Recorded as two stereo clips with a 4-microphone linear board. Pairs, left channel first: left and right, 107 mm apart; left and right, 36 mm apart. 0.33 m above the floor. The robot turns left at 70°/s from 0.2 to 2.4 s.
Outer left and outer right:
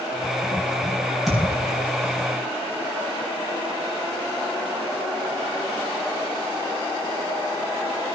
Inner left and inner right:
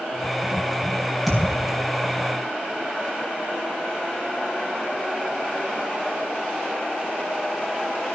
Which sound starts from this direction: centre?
A thud, at 1.3 s.